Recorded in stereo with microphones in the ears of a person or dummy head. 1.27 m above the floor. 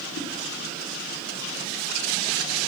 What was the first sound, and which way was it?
A whoosh, 55° left (ahead or behind).